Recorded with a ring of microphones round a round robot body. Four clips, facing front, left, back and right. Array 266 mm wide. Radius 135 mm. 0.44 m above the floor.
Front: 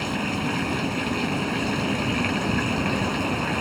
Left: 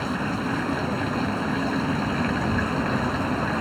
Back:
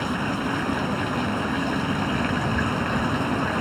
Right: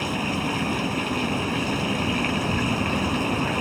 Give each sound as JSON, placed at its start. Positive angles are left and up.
{"t": 0.0, "sound": "running water", "azimuth_deg": -50}